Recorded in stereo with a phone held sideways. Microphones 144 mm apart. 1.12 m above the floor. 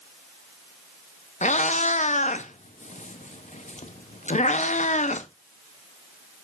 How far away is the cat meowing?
About 0.6 m.